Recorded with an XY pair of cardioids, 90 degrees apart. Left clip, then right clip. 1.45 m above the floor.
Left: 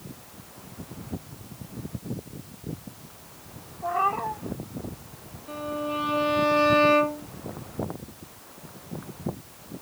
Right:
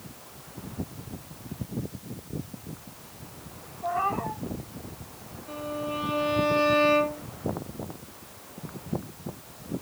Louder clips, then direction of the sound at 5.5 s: Left 2 dB; 20° left.